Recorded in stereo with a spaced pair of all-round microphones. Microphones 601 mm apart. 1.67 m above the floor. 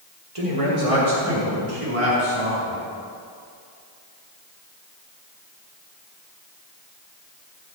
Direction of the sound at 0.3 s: 65° right (ahead or behind).